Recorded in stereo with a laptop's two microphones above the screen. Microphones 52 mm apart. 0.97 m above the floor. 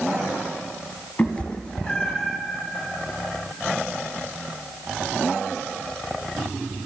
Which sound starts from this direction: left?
A cat meowing, at 1.2 s.